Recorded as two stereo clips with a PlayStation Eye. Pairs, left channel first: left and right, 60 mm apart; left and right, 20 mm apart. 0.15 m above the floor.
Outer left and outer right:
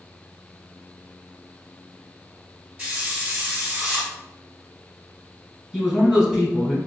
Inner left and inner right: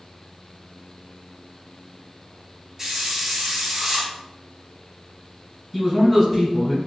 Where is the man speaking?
10° right (ahead or behind), 1.4 m.